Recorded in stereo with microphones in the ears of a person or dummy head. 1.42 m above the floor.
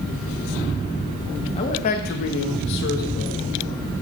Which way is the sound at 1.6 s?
30° left (ahead or behind).